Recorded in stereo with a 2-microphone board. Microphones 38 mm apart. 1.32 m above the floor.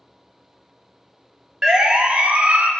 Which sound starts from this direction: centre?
A siren, at 1.6 s.